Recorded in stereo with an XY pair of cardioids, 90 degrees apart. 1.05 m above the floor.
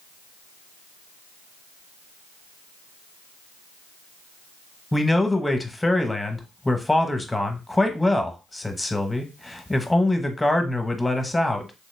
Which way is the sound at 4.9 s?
15° left.